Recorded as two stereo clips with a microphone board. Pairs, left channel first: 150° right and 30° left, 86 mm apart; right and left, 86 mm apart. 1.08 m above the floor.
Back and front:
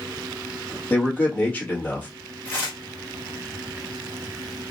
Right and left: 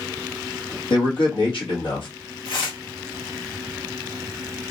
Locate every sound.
0.9 s a man speaking: 80° right, 1.4 m
2.5 s tearing paper: 80° right, 1.6 m